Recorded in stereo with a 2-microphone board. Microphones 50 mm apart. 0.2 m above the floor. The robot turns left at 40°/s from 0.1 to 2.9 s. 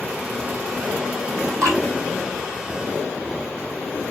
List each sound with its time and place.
1.6 s dripping: 85° right, 1.0 m